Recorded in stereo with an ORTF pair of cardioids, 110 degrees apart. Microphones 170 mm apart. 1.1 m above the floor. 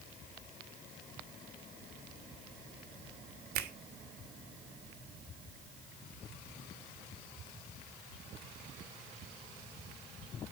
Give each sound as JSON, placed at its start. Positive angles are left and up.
{"t": 3.5, "sound": "a finger snap", "azimuth_deg": -65, "distance_m": 1.5}